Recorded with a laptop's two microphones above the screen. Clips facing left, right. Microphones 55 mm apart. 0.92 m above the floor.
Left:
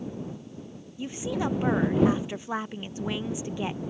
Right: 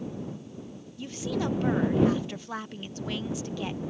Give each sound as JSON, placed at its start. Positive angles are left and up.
{"t": 1.0, "sound": "a woman speaking", "side_deg": 20}